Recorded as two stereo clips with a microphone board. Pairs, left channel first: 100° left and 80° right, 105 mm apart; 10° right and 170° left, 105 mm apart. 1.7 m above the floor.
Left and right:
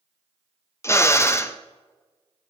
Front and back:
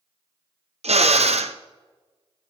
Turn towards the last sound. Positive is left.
turn(degrees=165)